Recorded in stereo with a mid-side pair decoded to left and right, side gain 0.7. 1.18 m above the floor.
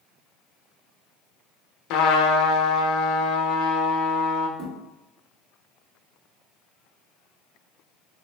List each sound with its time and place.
1.9 s a trumpet: 60° left, 0.6 m
4.6 s a thud: 65° right, 1.6 m